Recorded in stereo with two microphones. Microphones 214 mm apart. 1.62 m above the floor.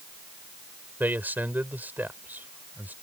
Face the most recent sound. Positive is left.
turn(degrees=-10)  # may be behind; listen again after turning